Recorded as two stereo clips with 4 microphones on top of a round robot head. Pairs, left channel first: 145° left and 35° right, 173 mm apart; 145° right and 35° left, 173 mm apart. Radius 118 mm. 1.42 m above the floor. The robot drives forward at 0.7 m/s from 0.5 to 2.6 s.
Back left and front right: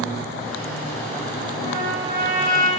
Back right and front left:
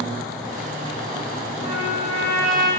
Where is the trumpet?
100° left, 2.5 m; by 2.7 s 115° left, 2.5 m.